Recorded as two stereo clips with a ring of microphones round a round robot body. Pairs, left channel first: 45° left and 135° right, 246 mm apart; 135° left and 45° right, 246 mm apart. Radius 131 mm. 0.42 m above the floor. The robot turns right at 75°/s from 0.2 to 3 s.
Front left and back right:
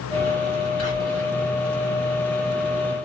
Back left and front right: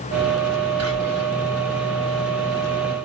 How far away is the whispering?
About 3.5 m.